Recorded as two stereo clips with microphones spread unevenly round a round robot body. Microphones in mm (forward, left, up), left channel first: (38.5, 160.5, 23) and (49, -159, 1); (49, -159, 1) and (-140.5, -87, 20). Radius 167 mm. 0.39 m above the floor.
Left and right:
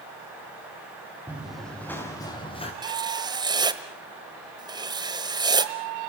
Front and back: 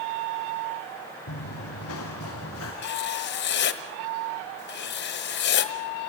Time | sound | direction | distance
1.3 | running footsteps | straight ahead | 4 m
2.8 | writing | 15° right | 1.3 m